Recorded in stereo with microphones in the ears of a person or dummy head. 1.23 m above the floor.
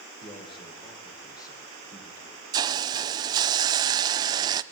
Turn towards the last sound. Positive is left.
turn(degrees=-20)  # may be behind; listen again after turning